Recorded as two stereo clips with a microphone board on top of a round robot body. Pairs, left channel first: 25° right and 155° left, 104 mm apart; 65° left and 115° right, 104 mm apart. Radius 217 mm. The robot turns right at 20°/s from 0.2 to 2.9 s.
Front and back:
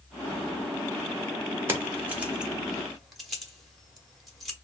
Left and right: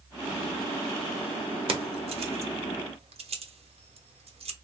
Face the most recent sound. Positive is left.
turn(degrees=-110)